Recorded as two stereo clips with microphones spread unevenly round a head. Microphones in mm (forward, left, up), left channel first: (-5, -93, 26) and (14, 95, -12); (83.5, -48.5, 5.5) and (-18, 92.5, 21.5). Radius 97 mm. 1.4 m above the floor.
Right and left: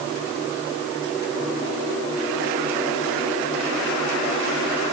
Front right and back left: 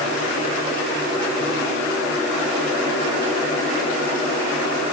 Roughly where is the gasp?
I don't hear a gasp.